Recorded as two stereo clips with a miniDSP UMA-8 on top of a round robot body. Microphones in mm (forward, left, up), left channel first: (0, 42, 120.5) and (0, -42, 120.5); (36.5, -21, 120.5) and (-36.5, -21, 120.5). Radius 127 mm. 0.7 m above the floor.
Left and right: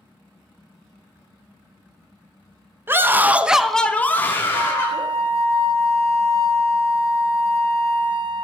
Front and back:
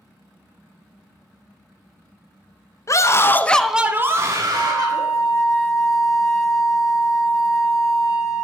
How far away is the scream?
About 1.2 m.